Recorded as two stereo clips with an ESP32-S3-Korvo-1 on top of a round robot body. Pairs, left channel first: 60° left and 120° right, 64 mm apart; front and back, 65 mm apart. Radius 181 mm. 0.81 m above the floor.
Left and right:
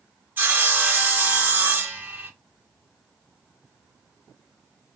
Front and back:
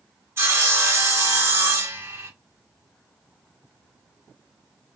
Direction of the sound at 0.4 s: 165° right.